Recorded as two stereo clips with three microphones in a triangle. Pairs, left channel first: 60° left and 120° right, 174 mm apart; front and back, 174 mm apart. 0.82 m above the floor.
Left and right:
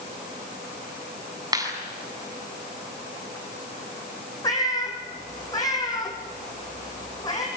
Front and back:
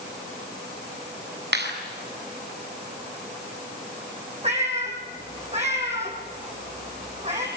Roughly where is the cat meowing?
Behind left.